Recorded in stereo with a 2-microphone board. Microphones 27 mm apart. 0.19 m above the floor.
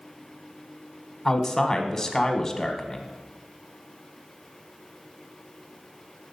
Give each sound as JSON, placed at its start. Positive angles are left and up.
{"t": 1.2, "sound": "a man speaking", "side_deg": 20, "distance_m": 1.0}